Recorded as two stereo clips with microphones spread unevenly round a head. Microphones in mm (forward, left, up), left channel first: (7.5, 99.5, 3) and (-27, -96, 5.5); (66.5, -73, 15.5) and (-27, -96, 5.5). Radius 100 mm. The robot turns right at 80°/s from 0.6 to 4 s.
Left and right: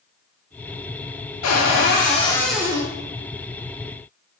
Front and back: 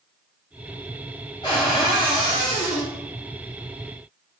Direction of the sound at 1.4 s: 85° left.